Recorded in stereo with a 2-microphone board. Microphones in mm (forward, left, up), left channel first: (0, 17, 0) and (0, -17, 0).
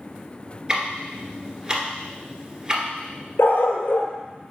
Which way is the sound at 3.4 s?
85° left.